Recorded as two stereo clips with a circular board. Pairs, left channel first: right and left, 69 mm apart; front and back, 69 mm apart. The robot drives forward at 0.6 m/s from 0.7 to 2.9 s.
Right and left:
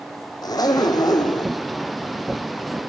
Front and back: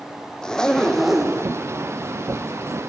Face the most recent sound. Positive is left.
turn(degrees=-135)